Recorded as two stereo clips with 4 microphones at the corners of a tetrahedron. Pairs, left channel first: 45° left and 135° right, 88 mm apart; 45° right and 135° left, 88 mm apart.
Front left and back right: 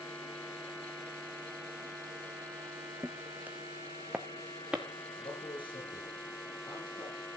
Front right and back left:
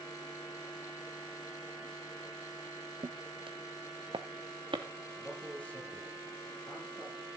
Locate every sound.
3.0 s footsteps: 160° left, 0.6 m; by 4.8 s 150° left, 3 m
5.2 s a man speaking: 30° left, 4.5 m